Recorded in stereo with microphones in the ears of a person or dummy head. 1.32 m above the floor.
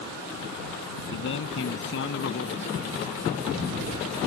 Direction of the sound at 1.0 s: 70° left (ahead or behind).